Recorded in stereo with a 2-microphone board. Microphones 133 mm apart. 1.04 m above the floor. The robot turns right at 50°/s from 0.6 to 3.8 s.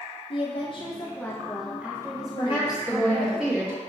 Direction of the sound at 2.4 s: 135° left.